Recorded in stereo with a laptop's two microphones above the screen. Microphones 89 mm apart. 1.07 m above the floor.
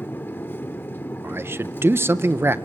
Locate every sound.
0.0 s a machine running: 25° left (ahead or behind), 0.8 m
1.2 s a man speaking: 25° right (ahead or behind), 0.6 m